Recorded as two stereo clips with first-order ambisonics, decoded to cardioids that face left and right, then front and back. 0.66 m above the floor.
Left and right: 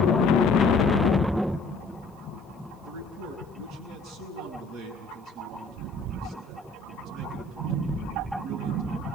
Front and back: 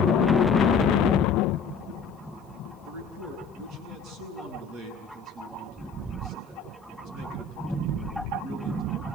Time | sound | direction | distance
2.8 | a man speaking | 140° right | 9 m